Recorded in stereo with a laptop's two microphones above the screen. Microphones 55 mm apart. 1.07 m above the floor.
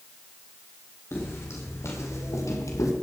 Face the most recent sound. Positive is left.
turn(degrees=70)  # may be behind; listen again after turning